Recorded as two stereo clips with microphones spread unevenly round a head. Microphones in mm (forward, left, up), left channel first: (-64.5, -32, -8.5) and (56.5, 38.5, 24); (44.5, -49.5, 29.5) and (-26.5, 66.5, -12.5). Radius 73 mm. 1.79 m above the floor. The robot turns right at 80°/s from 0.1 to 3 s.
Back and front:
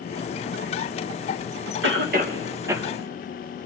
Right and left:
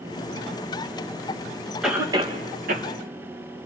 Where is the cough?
30° left, 3 m; by 2.9 s 115° left, 3 m.